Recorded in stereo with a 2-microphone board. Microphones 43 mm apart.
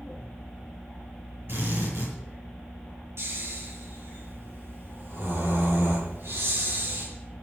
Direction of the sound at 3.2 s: 65° right (ahead or behind).